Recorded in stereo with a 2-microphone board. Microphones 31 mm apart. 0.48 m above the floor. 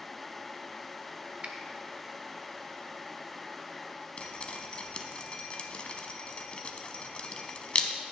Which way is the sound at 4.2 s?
35° left (ahead or behind).